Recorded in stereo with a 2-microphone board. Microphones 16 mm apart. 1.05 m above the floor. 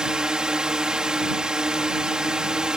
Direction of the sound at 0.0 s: 55° right (ahead or behind).